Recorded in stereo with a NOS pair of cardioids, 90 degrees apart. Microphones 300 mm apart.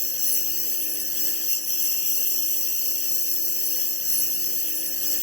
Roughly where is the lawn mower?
Ahead left.